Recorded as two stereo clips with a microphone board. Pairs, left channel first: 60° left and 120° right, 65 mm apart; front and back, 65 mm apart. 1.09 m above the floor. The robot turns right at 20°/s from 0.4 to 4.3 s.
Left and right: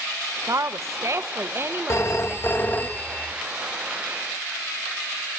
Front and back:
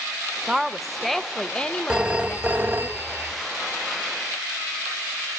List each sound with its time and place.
0.5 s a woman speaking: 100° right, 0.5 m; by 2.9 s 50° right, 0.5 m
1.9 s a phone ringing: 105° left, 0.7 m; by 3.3 s 135° left, 0.7 m